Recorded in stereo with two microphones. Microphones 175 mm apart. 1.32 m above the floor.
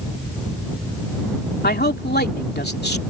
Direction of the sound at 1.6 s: 70° left (ahead or behind).